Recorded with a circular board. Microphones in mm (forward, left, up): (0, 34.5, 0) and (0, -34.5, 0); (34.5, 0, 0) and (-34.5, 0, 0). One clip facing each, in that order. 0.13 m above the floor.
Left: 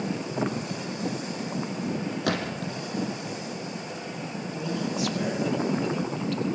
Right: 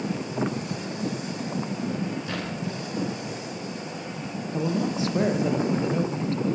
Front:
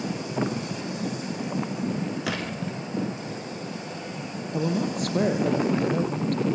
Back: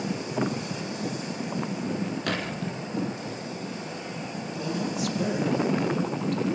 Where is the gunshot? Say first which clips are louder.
Left 2 dB, even; 85° left, 6.5 m.